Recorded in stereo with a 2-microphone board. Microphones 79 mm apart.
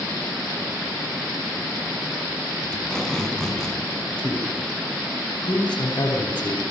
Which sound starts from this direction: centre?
Tape being pulled, at 2.7 s.